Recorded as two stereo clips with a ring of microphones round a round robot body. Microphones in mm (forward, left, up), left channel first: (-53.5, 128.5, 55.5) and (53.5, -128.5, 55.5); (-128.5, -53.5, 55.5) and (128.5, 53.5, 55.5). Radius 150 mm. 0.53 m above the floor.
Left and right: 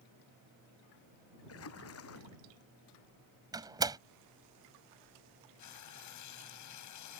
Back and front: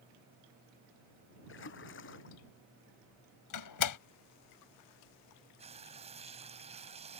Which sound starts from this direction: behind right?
A door slam, at 3.5 s.